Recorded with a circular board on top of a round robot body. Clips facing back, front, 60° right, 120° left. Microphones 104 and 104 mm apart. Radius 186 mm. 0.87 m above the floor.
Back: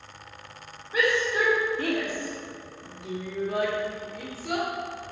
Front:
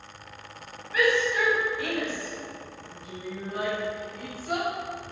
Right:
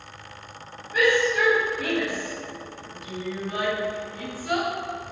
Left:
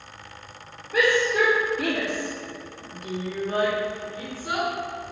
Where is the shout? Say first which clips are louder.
Front 1 dB, even; 115° left, 4 m; by 4.7 s 170° right, 5 m.